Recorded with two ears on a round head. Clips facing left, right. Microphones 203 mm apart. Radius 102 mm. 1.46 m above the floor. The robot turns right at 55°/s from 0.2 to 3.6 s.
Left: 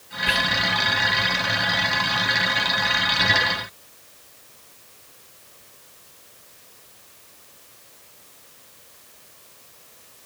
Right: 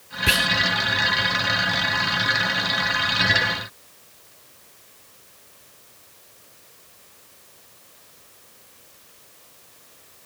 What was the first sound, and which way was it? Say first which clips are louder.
Whispering: right 2 dB; 60° right (ahead or behind).